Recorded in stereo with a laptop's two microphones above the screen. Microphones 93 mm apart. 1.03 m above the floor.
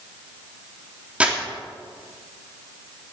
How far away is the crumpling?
About 3 m.